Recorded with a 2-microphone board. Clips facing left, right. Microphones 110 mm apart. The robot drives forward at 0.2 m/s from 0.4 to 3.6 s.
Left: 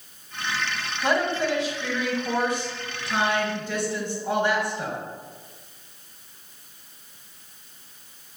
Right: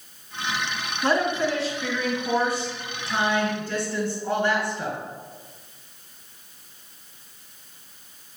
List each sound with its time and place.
1.0 s a woman speaking: 15° left (ahead or behind), 1.3 m; by 5.0 s 20° left (ahead or behind), 1.2 m